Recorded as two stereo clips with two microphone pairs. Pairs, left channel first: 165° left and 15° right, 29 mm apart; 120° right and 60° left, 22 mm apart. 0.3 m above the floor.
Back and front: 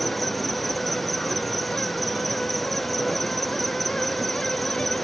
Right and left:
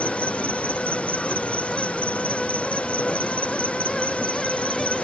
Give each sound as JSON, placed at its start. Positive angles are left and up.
{"t": 0.0, "sound": "an insect", "azimuth_deg": -105}